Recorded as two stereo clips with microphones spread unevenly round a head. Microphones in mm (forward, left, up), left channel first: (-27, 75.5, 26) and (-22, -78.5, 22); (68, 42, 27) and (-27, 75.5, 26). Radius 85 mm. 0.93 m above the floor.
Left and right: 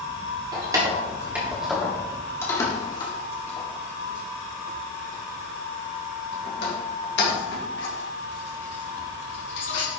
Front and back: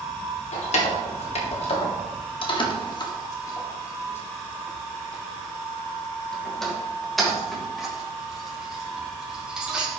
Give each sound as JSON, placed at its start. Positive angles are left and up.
{"t": 0.5, "sound": "keys jangling", "azimuth_deg": -20, "distance_m": 1.7}